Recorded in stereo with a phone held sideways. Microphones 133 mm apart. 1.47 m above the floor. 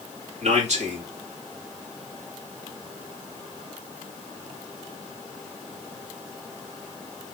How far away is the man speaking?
About 2.5 m.